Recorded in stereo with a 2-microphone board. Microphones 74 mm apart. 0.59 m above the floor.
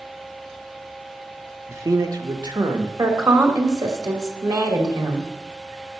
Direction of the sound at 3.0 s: 55° right (ahead or behind).